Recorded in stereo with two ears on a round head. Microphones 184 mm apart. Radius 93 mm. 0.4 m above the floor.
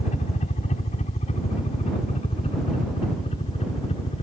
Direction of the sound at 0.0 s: 35° left (ahead or behind).